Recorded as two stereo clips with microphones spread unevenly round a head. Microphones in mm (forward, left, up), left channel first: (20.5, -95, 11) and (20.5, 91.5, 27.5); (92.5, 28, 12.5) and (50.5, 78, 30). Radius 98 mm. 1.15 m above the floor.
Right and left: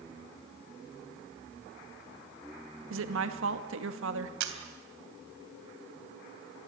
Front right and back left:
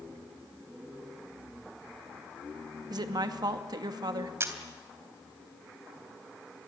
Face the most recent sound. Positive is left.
turn(degrees=90)